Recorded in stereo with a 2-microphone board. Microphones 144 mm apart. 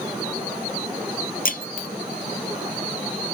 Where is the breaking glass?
70° left (ahead or behind).